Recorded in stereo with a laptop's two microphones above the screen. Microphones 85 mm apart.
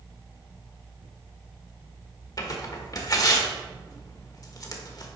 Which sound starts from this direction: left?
Tearing paper, at 2.4 s.